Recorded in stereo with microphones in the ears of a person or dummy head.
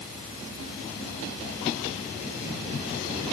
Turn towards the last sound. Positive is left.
No sound to turn to.